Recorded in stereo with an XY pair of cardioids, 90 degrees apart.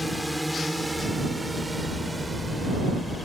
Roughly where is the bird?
Ahead left.